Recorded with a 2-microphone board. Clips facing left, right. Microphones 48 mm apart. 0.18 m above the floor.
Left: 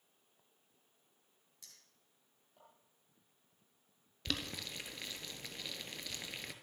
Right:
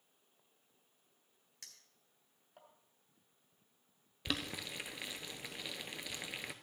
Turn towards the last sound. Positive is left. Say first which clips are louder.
# right 1 dB
turn(degrees=-15)  # may be behind; listen again after turning